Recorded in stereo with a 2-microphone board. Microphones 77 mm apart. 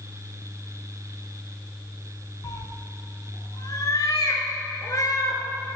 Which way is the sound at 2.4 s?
50° left (ahead or behind).